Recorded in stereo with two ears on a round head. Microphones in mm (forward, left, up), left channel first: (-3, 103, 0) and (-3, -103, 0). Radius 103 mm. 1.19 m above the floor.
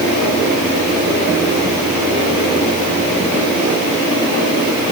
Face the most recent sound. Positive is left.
No sound to turn to.